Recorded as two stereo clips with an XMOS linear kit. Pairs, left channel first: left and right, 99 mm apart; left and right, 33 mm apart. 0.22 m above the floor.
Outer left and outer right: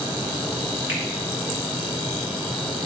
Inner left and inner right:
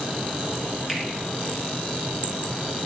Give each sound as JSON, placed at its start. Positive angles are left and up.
{"t": 0.9, "sound": "a finger snap", "side_deg": -20, "distance_m": 2.5}